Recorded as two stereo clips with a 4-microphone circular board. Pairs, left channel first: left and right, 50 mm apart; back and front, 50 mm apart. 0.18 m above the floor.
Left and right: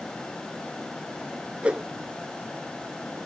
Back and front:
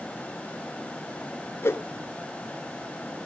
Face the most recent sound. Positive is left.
turn(degrees=-155)